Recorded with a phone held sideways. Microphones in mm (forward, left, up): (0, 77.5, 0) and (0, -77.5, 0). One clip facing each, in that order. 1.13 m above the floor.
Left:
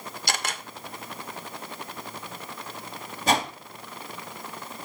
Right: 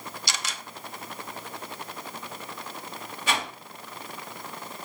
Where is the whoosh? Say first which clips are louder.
Left 6 dB; 40° left (ahead or behind), 1.3 m.